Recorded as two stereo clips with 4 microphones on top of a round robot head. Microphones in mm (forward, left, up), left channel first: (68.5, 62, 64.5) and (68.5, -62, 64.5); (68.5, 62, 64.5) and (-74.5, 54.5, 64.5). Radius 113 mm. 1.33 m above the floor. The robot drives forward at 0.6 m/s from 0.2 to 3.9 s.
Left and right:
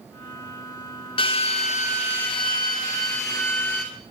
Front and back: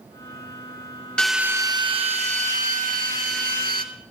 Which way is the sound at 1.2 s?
85° left.